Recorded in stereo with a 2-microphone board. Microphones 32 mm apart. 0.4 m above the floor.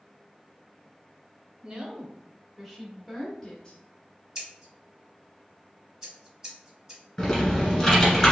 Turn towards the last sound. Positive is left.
turn(degrees=20)  # may be behind; listen again after turning